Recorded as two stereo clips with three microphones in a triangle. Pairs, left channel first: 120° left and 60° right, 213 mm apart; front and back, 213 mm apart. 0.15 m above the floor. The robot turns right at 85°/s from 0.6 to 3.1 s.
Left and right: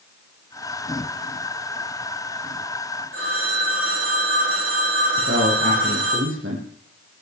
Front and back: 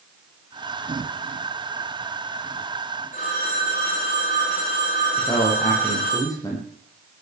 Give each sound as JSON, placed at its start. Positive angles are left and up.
{"t": 3.1, "sound": "a phone ringing", "azimuth_deg": -55, "distance_m": 9.5}
{"t": 5.2, "sound": "a man speaking", "azimuth_deg": -75, "distance_m": 7.0}